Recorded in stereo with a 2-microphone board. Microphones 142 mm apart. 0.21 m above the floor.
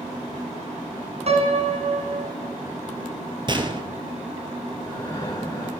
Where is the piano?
50° right (ahead or behind), 1.8 m.